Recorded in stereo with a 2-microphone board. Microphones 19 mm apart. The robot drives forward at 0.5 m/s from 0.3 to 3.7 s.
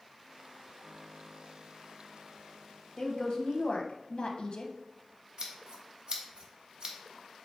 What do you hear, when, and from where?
3.0 s a woman speaking: 35° left (ahead or behind), 0.8 m; by 4.7 s 55° left (ahead or behind), 0.6 m
5.4 s scissors: 50° right (ahead or behind), 0.8 m